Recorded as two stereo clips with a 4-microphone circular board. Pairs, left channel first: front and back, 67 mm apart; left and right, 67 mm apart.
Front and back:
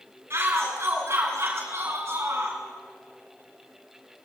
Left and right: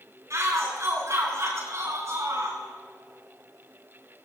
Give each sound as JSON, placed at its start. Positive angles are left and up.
{"t": 0.3, "sound": "a shout", "azimuth_deg": -130, "distance_m": 8.0}